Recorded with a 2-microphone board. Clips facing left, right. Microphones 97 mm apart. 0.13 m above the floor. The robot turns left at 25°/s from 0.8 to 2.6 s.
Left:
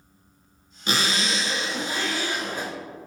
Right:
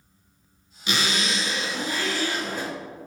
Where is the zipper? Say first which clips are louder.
Left 1 dB; 60° left, 0.7 m; by 2.7 s 20° left, 0.7 m.